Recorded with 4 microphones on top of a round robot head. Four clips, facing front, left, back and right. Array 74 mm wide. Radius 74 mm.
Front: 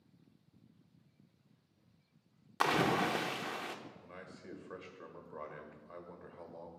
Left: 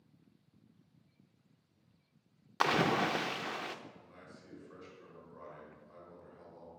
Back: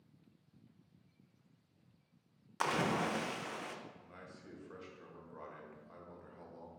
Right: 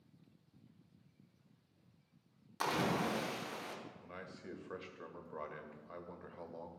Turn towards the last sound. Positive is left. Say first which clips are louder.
# right 5 dB, front 3 dB
turn(degrees=-65)